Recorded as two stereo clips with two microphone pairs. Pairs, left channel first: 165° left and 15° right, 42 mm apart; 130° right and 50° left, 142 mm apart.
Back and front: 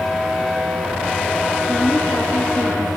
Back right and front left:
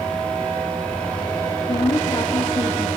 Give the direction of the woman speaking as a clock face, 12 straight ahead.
6 o'clock.